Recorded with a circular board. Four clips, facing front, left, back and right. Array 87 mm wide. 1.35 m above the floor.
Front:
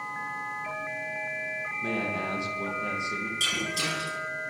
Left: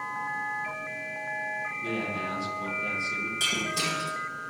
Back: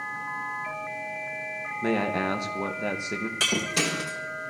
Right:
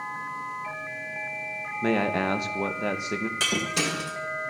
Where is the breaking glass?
145° right, 3.5 m.